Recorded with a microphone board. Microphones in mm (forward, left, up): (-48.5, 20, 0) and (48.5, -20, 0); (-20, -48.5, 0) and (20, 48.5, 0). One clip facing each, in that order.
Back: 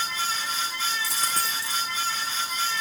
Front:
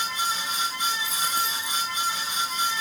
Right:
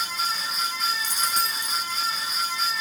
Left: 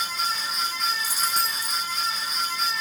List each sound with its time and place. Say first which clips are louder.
1.0 s a dropped coin: front 1 dB, even; 145° left, 5 m